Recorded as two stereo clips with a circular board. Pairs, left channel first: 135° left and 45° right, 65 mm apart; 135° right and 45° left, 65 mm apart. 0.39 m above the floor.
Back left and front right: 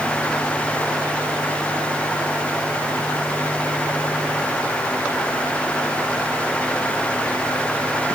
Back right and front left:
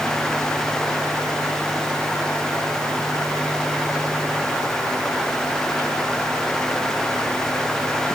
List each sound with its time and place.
Only background noise.